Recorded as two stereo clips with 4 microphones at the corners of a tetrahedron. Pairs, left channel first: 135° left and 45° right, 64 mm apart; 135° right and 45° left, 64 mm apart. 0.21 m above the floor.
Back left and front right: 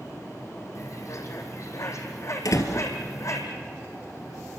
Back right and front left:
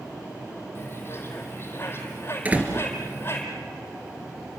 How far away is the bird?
About 3 m.